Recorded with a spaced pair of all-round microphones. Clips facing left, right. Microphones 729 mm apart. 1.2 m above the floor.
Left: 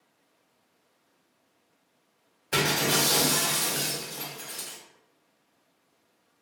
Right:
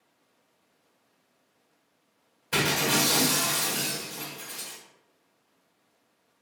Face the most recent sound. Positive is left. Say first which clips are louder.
# even
turn(degrees=0)  # may be behind; listen again after turning